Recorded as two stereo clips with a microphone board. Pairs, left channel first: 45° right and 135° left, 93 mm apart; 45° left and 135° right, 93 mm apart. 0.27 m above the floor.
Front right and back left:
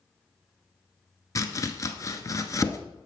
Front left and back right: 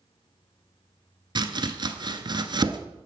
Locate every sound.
1.4 s chopping: 100° right, 0.8 m